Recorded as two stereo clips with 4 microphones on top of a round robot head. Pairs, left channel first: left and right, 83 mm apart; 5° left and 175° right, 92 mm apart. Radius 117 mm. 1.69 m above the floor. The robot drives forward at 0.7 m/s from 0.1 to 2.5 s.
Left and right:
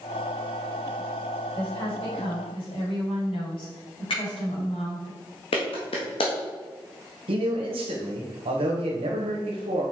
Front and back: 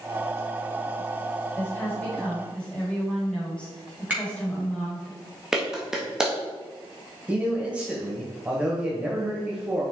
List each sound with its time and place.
1.6 s a woman speaking: 75° left, 4 m; by 5.1 s 85° left, 4 m
4.1 s a finger snap: 110° left, 4 m
5.5 s a clap: 100° left, 1.6 m
7.3 s a man speaking: 95° right, 1.6 m